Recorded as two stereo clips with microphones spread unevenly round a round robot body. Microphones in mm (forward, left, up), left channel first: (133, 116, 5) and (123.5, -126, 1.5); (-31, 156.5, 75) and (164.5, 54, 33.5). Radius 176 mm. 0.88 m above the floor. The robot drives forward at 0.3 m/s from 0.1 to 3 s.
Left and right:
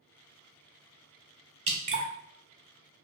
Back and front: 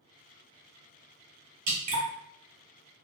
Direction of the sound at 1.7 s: 40° right.